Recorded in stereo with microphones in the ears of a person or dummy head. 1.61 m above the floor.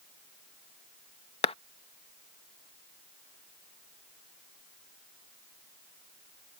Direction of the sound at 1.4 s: 30° left (ahead or behind).